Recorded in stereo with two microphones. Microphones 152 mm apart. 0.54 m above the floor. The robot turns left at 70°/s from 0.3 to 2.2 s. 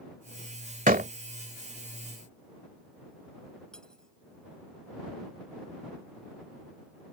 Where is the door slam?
65° right (ahead or behind); by 1.1 s 75° right (ahead or behind).